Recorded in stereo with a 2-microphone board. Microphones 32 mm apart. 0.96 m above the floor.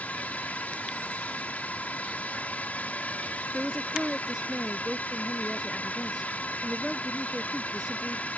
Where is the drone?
50° left (ahead or behind).